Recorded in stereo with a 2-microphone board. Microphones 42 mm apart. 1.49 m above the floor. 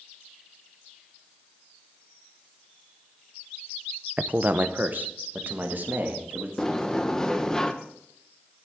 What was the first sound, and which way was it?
A man speaking, 35° right (ahead or behind).